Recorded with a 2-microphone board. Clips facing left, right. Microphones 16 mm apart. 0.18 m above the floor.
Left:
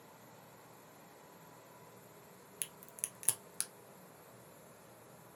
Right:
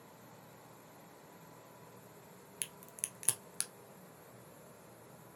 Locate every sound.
2.6 s a crack: 15° right (ahead or behind), 0.7 m